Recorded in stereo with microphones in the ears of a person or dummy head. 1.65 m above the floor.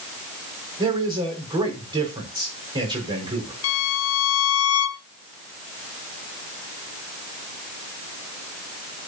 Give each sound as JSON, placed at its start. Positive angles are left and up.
{"t": 0.8, "sound": "a man speaking", "side_deg": -20, "distance_m": 5.5}
{"t": 3.6, "sound": "a violin", "side_deg": 80, "distance_m": 0.9}